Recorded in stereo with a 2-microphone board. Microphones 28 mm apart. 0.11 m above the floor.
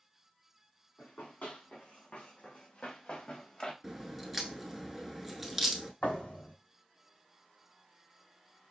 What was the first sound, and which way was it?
Running footsteps, 75° left (ahead or behind).